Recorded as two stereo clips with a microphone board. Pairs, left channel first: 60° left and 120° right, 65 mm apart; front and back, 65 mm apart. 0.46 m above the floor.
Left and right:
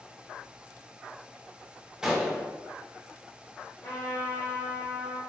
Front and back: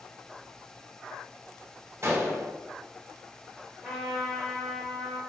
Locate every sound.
2.0 s a gunshot: 165° left, 0.8 m
3.8 s a trumpet: 100° left, 1.7 m